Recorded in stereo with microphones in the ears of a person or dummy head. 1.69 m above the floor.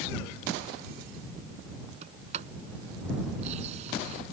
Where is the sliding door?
35° right (ahead or behind).